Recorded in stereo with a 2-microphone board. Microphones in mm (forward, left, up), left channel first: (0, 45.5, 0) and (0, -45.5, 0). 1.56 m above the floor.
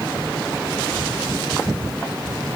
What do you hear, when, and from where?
Only background noise.